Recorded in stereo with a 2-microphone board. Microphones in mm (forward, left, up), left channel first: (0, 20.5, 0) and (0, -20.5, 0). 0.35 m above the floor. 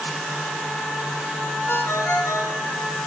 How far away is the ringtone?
About 2.0 m.